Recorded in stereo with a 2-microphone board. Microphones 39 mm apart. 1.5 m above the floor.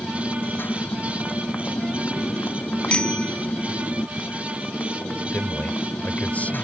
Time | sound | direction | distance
0.0 | a motorcycle | 60° left (ahead or behind) | ?
2.9 | a bicycle bell | 30° left (ahead or behind) | ?
5.3 | a man speaking | 40° left (ahead or behind) | ?